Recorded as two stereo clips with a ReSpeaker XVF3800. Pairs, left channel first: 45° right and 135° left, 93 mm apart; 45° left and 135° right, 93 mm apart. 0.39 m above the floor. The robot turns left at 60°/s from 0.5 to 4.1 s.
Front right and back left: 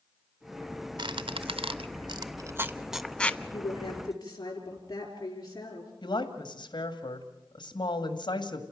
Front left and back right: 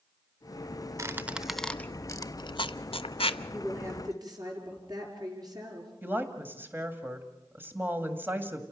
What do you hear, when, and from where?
1.0 s a squeak: 165° left, 0.6 m; by 3.4 s 25° left, 0.6 m
3.5 s a woman speaking: 55° right, 6 m; by 5.9 s 90° right, 6 m
6.0 s a woman speaking: 70° right, 2.0 m